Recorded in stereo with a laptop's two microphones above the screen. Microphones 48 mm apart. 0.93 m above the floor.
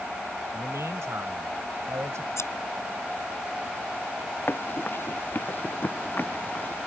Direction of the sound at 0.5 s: 80° right.